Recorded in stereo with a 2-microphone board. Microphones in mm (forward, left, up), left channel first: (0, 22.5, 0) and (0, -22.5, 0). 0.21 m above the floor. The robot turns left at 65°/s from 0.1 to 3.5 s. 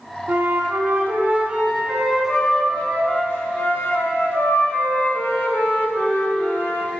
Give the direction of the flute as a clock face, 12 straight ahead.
2 o'clock.